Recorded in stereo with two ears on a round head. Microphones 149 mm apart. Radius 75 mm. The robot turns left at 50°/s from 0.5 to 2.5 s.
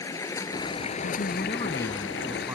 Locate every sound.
0.0 s running water: 160° left; by 2.5 s 60° left
1.0 s a man speaking: 55° left; by 2.5 s 15° right